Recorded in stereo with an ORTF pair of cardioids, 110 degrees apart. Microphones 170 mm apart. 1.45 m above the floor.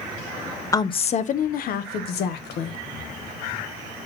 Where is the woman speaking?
20° left, 0.5 m; by 2.8 s 75° left, 1.5 m.